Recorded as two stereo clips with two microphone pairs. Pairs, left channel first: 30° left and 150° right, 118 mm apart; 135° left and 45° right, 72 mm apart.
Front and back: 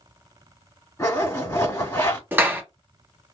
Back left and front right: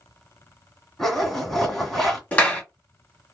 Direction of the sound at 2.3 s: 170° left.